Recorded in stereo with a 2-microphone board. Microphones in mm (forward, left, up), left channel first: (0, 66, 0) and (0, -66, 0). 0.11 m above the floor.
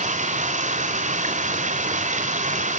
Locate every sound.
0.0 s running water: 65° right (ahead or behind), 2.5 m